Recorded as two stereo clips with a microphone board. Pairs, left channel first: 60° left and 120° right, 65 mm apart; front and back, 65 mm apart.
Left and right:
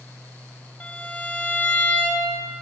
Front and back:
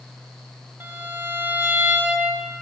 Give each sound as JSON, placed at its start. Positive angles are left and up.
{"t": 0.8, "sound": "a violin", "azimuth_deg": 125, "distance_m": 2.5}